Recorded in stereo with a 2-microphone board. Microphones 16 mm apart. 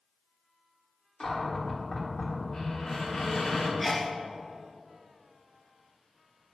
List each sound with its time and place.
1.2 s a cupboard door: 55° left (ahead or behind), 1.8 m
3.8 s a sneeze: centre (ahead or behind), 0.6 m